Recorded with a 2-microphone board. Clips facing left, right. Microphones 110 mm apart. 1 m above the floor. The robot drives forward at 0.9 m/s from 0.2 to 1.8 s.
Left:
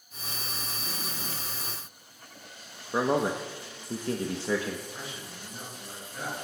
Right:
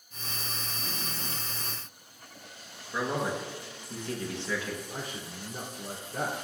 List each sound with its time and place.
2.9 s a man speaking: 40° left (ahead or behind), 0.8 m
4.9 s a man speaking: 75° right (ahead or behind), 2.5 m